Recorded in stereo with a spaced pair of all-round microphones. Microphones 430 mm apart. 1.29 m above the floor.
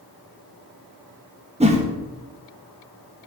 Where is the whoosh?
15° right (ahead or behind), 1.2 m.